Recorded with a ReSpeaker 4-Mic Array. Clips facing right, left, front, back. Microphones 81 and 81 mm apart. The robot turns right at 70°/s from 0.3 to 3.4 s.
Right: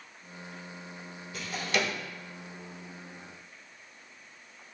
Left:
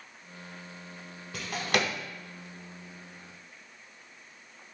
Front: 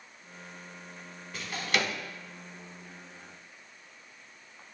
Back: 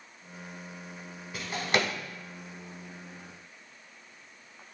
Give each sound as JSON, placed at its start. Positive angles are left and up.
{"t": 1.3, "sound": "a drawer", "azimuth_deg": 95, "distance_m": 0.6}